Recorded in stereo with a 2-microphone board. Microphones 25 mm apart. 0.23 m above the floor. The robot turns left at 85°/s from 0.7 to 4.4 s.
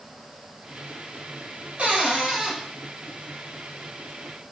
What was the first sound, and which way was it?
A cupboard door, 95° right.